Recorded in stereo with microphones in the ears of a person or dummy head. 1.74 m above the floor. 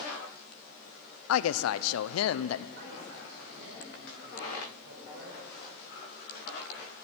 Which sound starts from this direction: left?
A woman speaking, at 1.3 s.